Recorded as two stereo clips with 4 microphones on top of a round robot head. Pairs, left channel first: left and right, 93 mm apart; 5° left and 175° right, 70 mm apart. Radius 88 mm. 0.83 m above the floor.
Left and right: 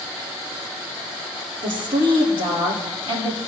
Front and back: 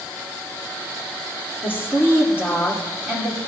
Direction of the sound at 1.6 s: 110° right.